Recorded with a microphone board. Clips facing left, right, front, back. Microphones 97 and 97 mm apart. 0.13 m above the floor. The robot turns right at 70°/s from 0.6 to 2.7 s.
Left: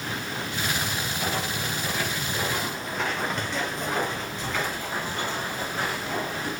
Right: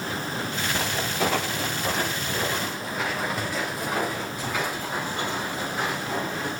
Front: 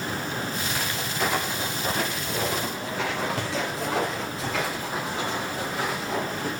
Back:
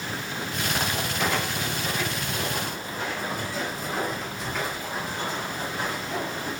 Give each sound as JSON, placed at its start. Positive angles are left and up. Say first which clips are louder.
{"t": 0.8, "sound": "footsteps", "louder": "right 4 dB, back 3 dB", "azimuth_deg": -110, "distance_m": 2.0}